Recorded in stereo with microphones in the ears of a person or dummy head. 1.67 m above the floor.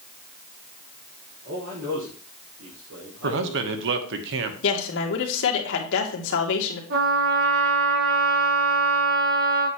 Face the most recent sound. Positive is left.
turn(degrees=-70)  # may be behind; listen again after turning